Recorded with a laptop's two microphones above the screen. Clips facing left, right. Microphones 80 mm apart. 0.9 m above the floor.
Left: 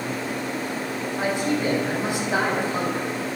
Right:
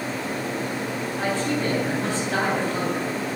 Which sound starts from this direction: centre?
A man speaking, at 1.2 s.